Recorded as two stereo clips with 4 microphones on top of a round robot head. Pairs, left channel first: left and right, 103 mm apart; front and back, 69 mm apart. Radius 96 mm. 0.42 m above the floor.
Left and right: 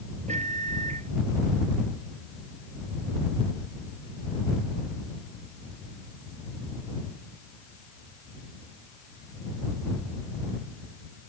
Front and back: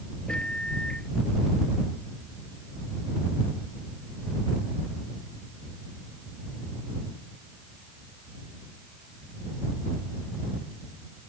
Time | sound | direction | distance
0.3 | a microwave | 80° right | ?